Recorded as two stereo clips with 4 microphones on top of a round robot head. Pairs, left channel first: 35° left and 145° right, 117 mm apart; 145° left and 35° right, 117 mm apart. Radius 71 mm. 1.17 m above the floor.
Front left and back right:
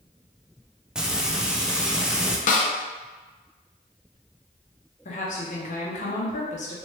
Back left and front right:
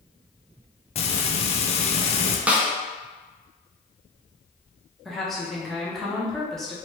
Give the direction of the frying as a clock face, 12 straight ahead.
8 o'clock.